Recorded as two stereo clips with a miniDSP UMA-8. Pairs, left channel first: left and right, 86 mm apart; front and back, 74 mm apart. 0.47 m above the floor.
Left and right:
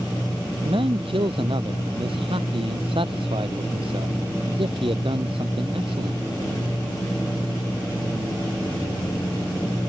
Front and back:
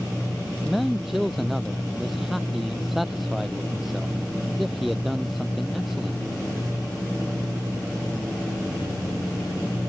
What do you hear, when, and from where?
0.7 s a man speaking: 90° right